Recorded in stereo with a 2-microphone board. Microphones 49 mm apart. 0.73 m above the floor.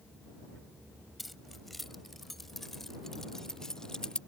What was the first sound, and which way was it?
Keys jangling, centre (ahead or behind).